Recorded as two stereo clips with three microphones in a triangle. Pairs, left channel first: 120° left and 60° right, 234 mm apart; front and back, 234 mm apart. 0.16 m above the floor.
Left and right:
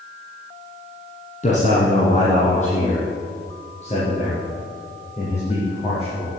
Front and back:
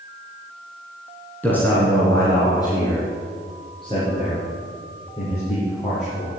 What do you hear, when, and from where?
1.4 s a man speaking: 80° left, 2 m; by 6.3 s 60° left, 5 m